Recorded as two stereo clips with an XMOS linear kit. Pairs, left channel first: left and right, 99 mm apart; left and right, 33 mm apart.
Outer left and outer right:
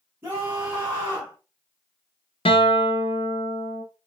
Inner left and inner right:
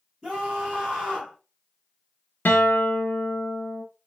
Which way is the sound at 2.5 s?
75° left (ahead or behind).